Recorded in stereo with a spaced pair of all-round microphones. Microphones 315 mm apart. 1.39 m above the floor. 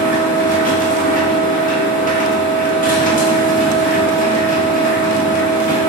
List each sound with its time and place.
0.0 s a machine running: 25° left (ahead or behind), 0.9 m